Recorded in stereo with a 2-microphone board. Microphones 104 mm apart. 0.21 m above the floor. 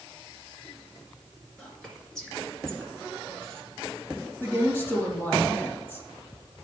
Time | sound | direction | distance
1.6 | whispering | 5° left (ahead or behind) | 2.5 m
4.4 | a woman speaking | 20° left (ahead or behind) | 2.5 m